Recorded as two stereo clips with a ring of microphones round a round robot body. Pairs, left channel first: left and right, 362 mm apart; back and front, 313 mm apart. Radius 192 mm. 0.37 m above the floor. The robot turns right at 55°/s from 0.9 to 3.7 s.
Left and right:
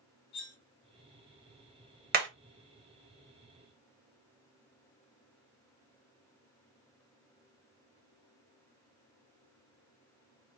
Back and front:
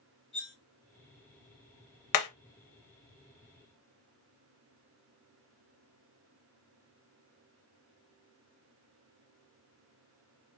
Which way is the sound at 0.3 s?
130° left.